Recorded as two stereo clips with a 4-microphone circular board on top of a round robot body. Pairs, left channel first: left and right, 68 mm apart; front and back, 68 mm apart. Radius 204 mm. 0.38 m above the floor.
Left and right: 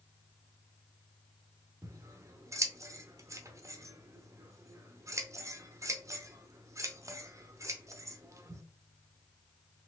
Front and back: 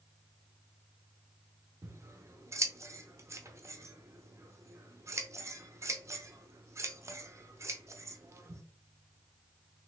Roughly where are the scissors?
Behind right.